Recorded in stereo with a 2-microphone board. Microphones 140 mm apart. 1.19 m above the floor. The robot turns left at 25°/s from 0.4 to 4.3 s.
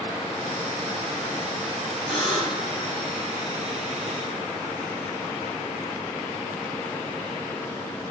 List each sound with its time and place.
2.1 s a buzzer: centre (ahead or behind), 3.5 m; by 2.7 s 15° left (ahead or behind), 3.5 m